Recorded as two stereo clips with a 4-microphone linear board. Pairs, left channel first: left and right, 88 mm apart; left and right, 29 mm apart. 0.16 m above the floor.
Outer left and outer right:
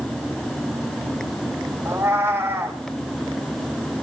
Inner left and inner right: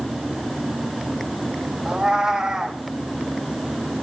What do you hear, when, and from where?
1.9 s a cat meowing: 30° right (ahead or behind), 2 m